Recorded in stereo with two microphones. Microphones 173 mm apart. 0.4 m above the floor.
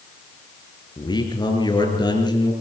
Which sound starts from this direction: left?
A man speaking, at 1.0 s.